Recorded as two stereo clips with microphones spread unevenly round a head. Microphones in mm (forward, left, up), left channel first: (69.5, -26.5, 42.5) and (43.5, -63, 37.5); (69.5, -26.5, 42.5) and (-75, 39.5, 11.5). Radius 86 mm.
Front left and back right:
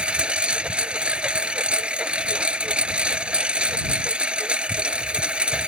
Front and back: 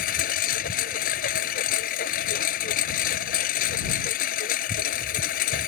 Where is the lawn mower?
60° right.